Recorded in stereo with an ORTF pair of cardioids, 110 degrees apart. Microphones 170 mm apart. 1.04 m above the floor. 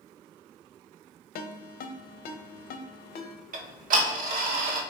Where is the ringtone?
65° left, 0.7 m.